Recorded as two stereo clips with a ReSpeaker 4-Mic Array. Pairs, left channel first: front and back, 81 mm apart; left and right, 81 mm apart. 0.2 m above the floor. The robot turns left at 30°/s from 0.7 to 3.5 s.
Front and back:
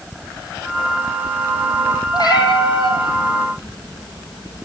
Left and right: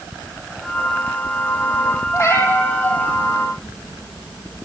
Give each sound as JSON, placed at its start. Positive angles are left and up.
{"t": 2.1, "sound": "a cat meowing", "azimuth_deg": 40, "distance_m": 3.5}